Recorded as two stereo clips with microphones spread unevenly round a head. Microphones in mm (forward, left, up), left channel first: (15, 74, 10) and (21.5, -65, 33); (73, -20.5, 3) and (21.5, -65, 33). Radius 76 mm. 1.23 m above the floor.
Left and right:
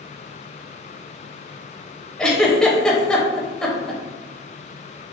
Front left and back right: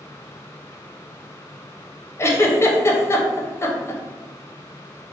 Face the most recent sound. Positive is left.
turn(degrees=15)